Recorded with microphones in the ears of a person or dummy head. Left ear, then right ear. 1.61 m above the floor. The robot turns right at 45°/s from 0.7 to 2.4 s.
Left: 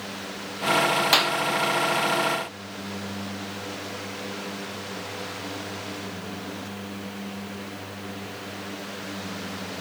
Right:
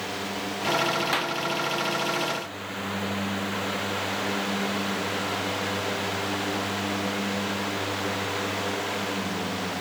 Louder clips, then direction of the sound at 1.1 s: Left 6 dB; 30° left (ahead or behind).